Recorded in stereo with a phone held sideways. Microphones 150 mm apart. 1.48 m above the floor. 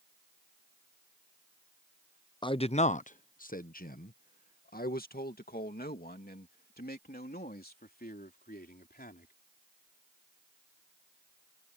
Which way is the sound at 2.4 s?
30° left (ahead or behind).